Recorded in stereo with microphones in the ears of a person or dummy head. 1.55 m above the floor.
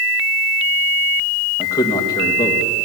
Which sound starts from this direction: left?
A man speaking, at 1.6 s.